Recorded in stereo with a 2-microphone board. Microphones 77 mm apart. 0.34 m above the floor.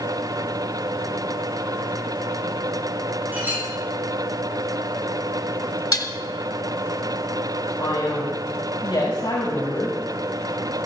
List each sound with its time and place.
3.3 s a clink: 25° right (ahead or behind), 9 m
5.9 s dishes clattering: 55° left (ahead or behind), 1.3 m
7.8 s a man speaking: 80° left, 5.5 m